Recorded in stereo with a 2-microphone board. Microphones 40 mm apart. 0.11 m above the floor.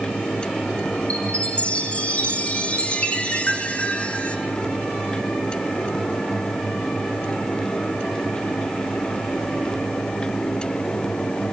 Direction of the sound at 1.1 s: 30° left (ahead or behind).